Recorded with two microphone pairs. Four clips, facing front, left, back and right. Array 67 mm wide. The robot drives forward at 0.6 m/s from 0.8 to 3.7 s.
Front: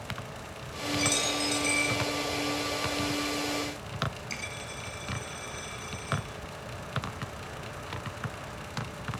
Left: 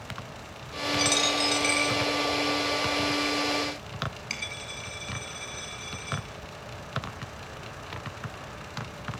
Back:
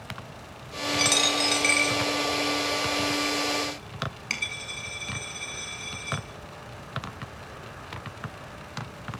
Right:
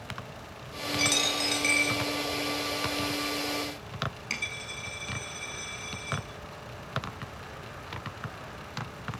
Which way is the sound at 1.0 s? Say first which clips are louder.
Left 2 dB, back 5 dB; 160° right.